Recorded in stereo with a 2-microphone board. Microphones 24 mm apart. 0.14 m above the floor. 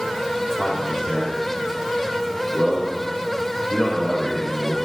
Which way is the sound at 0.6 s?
65° left (ahead or behind).